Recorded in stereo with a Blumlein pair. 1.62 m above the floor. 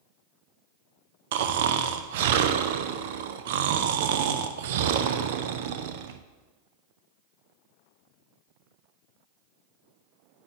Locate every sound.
1.3 s snoring: 55° right, 0.6 m